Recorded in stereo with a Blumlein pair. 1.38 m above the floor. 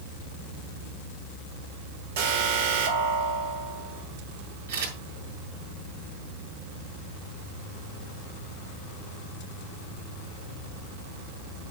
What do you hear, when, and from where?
2.2 s an alarm: 55° right, 4.5 m
4.7 s a camera shutter: 65° right, 7 m